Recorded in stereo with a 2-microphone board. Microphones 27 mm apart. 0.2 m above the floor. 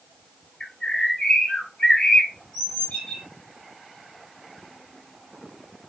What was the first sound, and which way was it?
A bird, 45° left (ahead or behind).